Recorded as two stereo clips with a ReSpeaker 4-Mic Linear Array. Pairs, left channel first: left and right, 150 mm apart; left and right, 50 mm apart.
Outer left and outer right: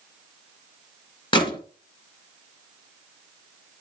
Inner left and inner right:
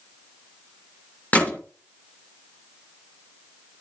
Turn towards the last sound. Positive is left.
turn(degrees=35)  # may be behind; listen again after turning